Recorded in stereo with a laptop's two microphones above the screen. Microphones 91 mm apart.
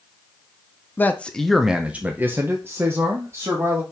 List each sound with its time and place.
1.0 s a man speaking: 20° left (ahead or behind), 0.6 m; by 3.8 s 35° right (ahead or behind), 1.5 m